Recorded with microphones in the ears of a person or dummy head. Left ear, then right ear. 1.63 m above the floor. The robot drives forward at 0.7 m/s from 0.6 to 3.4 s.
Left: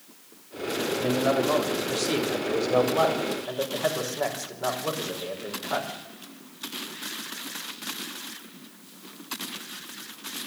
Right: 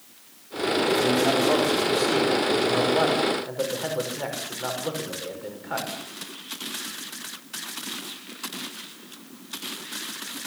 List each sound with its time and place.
1.0 s a man speaking: centre (ahead or behind), 3.5 m